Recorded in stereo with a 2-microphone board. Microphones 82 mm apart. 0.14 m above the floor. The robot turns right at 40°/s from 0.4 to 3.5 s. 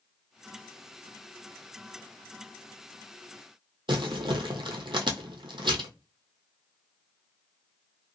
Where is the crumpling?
80° right, 0.7 m.